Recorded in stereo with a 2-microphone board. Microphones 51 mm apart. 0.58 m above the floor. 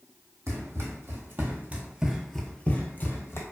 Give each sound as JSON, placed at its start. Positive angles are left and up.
{"t": 0.5, "sound": "running footsteps", "side_deg": -60, "distance_m": 1.1}